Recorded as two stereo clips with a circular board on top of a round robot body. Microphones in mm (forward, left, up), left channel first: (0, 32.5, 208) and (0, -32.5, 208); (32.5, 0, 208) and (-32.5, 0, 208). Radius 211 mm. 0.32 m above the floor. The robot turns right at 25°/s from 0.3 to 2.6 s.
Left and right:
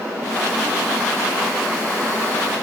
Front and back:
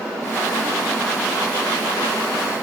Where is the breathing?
I don't hear breathing.